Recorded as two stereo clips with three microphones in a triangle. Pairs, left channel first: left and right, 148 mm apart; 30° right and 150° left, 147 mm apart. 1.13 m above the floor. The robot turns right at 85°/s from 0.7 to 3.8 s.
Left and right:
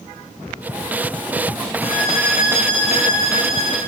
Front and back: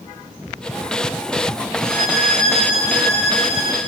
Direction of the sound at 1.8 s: 135° left.